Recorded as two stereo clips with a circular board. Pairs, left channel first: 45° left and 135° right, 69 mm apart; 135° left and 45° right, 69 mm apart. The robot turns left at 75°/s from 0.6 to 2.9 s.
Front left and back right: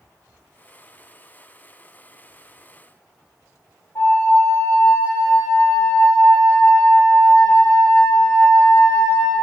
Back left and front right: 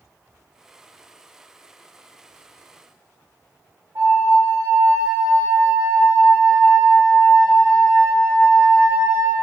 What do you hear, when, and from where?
4.0 s a flute: 5° right, 1.5 m